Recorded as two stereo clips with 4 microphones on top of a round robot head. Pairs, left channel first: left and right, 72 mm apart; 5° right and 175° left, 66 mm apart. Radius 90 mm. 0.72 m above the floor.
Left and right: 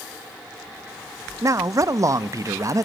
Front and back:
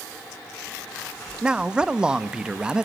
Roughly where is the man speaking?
Right.